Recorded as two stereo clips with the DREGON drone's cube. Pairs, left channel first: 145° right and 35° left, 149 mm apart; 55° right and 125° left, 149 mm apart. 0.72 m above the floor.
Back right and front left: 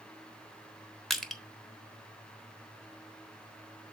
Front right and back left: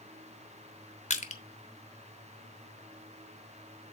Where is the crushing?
60° right, 1.0 m.